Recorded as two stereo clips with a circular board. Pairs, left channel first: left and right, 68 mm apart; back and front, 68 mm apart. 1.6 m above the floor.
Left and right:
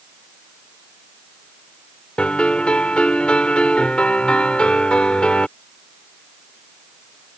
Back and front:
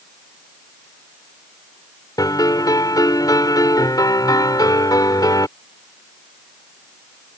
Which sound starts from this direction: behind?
A piano, at 2.2 s.